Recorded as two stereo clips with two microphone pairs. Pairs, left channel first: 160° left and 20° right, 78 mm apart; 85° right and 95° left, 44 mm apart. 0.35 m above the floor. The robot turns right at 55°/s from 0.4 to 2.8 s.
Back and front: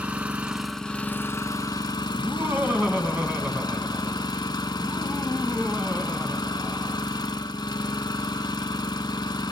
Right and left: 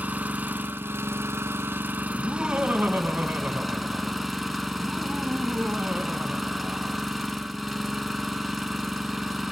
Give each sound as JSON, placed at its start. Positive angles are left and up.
{"t": 0.0, "sound": "an engine running", "azimuth_deg": 55, "distance_m": 1.0}
{"t": 2.1, "sound": "laughter", "azimuth_deg": 15, "distance_m": 3.0}